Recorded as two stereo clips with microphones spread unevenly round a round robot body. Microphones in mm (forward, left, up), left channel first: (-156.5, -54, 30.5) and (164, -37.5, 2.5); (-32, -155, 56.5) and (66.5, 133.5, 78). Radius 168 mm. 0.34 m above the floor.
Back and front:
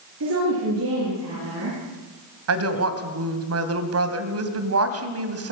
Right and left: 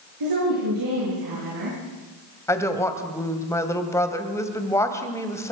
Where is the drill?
No drill in this recording.